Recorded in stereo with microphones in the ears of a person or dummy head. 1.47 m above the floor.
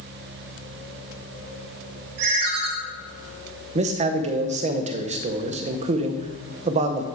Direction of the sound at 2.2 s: 60° right (ahead or behind).